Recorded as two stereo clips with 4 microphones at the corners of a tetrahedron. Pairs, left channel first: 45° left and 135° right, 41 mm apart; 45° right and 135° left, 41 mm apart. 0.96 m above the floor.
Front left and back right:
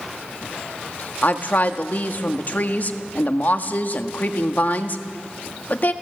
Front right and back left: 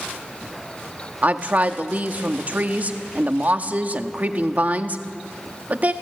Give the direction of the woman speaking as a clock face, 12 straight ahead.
9 o'clock.